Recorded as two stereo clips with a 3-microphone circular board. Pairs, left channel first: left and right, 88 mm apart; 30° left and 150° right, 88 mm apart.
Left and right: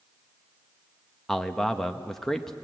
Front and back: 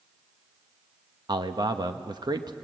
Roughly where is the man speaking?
Behind.